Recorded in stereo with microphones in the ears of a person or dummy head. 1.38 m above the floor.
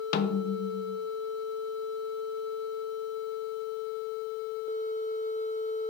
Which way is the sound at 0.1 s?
50° left (ahead or behind).